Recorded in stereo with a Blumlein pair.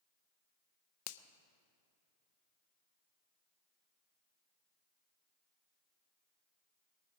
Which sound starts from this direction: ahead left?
A finger snap, at 1.1 s.